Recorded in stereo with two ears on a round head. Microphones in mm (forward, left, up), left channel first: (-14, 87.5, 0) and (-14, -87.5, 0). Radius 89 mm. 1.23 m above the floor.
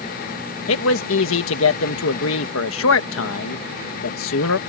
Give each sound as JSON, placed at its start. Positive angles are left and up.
{"t": 0.7, "sound": "a man speaking", "side_deg": 75}